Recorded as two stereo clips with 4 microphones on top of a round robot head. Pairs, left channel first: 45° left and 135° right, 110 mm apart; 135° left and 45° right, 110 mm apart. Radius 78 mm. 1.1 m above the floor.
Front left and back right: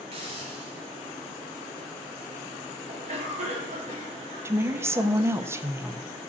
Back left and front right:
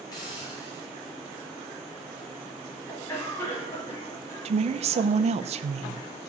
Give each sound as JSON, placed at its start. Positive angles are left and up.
{"t": 0.1, "sound": "a hiss", "azimuth_deg": -170, "distance_m": 2.5}
{"t": 2.9, "sound": "a cough", "azimuth_deg": -160, "distance_m": 3.0}
{"t": 4.5, "sound": "a woman speaking", "azimuth_deg": -65, "distance_m": 0.5}